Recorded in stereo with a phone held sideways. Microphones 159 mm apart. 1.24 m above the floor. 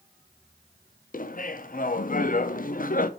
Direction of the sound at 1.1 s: 55° left (ahead or behind).